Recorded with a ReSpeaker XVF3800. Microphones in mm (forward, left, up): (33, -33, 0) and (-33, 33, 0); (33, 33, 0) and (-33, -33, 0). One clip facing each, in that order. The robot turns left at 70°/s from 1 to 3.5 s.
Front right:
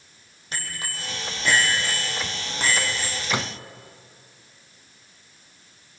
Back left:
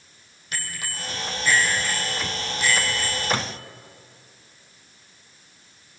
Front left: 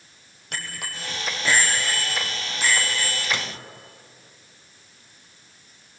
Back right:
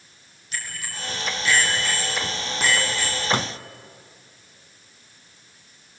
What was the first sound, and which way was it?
A bicycle bell, 15° left.